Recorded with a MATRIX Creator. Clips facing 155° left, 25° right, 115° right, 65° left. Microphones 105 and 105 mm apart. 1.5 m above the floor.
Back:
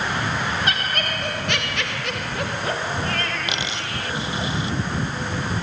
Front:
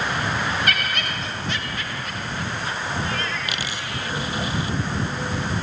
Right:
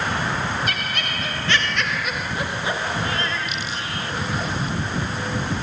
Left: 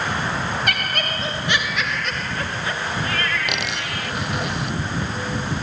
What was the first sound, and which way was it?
Laughter, 95° left.